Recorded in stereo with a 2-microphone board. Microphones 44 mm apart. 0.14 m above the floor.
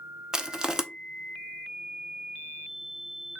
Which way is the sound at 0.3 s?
15° right (ahead or behind).